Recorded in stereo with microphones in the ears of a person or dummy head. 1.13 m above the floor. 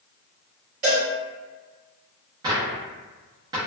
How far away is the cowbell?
About 0.6 m.